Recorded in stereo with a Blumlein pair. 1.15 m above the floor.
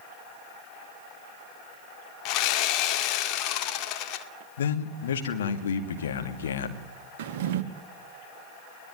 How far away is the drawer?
About 1.3 m.